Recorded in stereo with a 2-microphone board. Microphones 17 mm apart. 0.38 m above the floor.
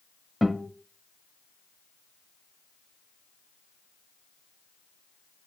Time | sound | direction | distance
0.4 | a guitar | 5° right (ahead or behind) | 1.2 m